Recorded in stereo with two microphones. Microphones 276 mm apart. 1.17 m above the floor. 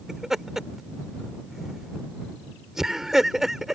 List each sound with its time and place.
0.1 s laughter: centre (ahead or behind)